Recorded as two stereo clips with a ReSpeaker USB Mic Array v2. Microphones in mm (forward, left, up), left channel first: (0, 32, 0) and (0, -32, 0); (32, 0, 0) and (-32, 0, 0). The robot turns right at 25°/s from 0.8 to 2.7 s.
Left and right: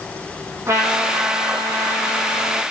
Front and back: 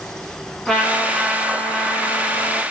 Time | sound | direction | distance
0.7 | a trumpet | 75° right | 1.4 m